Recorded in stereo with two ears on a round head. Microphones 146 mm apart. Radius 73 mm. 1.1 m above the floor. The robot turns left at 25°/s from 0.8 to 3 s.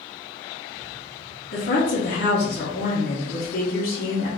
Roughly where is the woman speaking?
Behind left.